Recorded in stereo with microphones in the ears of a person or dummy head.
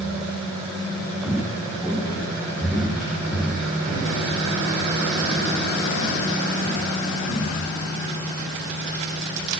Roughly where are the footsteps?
Centre.